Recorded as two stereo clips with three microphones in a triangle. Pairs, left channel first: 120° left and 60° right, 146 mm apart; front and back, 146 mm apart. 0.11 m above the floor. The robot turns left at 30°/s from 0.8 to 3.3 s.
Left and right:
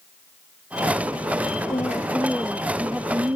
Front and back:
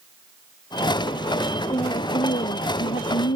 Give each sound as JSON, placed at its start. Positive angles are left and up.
{"t": 1.7, "sound": "a woman speaking", "azimuth_deg": 60}